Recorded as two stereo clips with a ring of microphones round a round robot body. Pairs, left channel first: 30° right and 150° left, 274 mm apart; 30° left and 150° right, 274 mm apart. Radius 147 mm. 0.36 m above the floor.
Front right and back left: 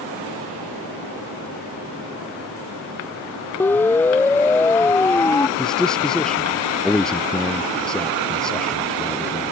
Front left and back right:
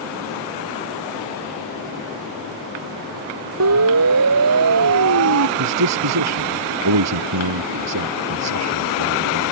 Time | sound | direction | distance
3.6 | a siren | 115° right | ?
5.6 | a man speaking | 120° right | ?